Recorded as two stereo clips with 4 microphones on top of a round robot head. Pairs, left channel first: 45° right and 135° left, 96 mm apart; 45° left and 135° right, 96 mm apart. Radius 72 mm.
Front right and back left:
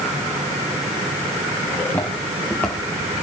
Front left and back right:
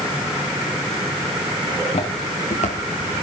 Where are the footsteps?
25° left, 5 m.